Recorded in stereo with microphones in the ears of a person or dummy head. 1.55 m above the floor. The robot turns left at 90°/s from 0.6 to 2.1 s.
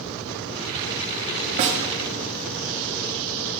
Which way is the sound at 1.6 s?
35° right (ahead or behind).